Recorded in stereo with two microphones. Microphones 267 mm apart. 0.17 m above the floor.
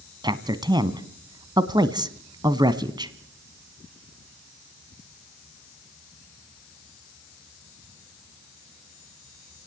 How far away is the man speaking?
About 1.3 m.